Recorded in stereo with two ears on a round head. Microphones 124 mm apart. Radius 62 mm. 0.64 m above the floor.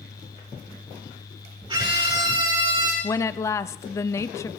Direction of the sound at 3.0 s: 20° left (ahead or behind).